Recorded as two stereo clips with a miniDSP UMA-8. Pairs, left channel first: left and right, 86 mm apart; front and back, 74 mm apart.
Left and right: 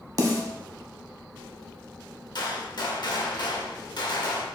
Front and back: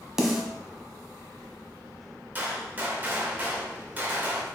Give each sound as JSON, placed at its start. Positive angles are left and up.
{"t": 0.2, "sound": "a snare drum", "azimuth_deg": -100, "distance_m": 0.7}
{"t": 2.4, "sound": "a gunshot", "azimuth_deg": 115, "distance_m": 0.7}